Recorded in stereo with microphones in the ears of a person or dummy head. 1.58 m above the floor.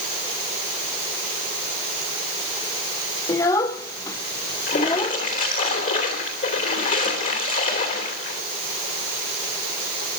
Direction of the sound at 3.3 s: 15° left (ahead or behind).